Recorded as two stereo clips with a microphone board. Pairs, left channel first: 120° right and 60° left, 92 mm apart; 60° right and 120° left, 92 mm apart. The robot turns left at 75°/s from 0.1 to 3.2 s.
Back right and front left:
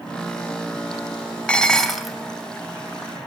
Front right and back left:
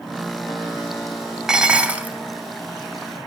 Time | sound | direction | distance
1.5 | dishes clattering | 170° right | 0.7 m